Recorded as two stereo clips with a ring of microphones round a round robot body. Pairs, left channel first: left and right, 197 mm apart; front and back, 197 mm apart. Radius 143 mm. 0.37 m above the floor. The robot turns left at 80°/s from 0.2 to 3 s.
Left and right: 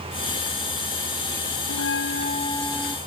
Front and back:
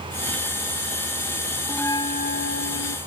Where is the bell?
90° left; by 3.0 s 15° right.